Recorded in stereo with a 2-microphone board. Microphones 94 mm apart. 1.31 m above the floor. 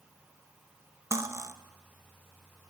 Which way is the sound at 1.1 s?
30° right (ahead or behind).